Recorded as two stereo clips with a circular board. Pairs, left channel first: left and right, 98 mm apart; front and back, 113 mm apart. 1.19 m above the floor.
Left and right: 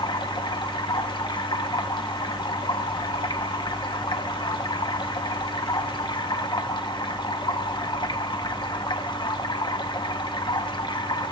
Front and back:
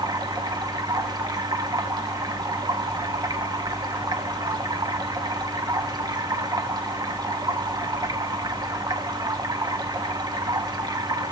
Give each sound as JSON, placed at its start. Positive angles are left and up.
{"t": 0.0, "sound": "running water", "azimuth_deg": 130, "distance_m": 1.2}